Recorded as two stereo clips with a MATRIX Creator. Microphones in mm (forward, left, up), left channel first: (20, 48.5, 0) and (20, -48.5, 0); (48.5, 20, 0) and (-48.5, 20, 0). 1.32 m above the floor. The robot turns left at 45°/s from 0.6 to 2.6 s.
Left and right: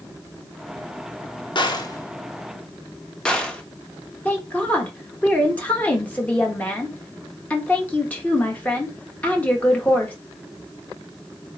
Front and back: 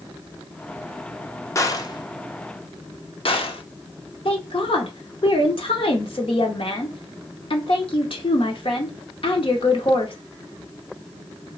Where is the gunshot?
60° left, 0.6 m; by 3.6 s 10° left, 0.6 m.